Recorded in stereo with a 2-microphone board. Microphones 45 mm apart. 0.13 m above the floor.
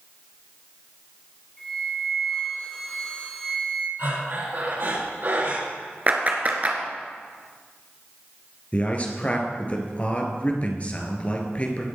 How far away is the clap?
About 1.6 m.